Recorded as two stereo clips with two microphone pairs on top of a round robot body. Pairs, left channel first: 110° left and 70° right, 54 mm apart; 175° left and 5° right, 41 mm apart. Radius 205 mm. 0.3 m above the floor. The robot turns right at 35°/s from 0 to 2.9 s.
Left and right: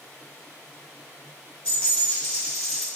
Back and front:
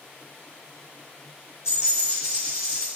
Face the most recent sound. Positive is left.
turn(degrees=-155)